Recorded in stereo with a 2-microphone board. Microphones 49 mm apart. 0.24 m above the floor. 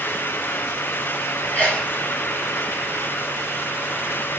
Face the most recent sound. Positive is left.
turn(degrees=35)  # may be behind; listen again after turning